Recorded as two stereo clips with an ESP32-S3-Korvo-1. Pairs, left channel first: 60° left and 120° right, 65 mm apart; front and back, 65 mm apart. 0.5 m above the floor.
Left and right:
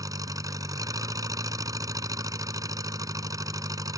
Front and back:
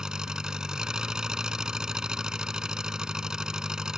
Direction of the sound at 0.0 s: 100° right.